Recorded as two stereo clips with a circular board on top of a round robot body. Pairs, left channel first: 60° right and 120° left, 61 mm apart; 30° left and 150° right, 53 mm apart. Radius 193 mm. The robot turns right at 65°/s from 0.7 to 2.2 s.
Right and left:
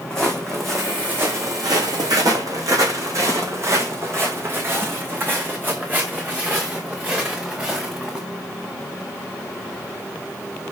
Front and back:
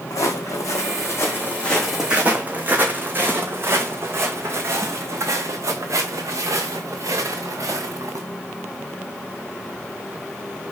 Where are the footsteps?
20° left, 2.5 m; by 8.2 s 165° right, 4 m.